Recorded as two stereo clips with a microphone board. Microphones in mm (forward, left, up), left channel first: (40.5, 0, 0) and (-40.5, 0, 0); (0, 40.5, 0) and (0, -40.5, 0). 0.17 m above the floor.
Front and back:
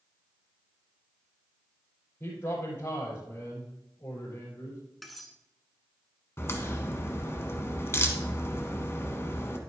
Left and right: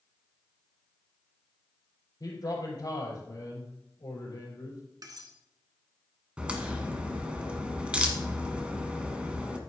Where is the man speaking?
50° left, 4.5 m.